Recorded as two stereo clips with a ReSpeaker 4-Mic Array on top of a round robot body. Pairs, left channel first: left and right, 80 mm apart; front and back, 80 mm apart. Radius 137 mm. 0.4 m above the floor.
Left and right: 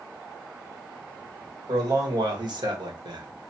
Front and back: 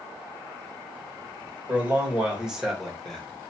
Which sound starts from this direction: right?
A man speaking, at 1.7 s.